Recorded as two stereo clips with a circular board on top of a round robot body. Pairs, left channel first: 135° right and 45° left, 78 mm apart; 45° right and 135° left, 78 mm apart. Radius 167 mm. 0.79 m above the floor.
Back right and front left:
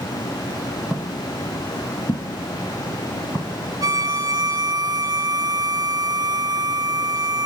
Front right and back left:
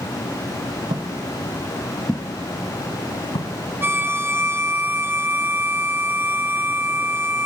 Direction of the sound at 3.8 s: 75° left.